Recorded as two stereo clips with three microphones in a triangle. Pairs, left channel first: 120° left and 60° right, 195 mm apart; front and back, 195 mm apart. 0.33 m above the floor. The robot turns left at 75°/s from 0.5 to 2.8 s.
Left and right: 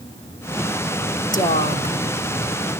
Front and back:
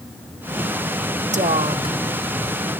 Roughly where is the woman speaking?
Behind.